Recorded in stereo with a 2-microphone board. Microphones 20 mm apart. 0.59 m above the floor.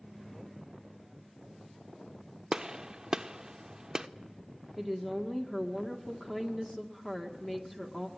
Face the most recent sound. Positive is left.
turn(degrees=15)  # may be behind; listen again after turning